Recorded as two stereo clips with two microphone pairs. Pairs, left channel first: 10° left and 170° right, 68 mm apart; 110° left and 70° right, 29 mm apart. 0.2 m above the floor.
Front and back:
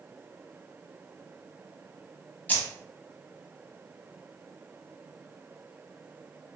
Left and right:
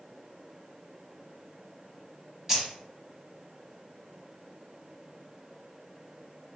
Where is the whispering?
No whispering in this recording.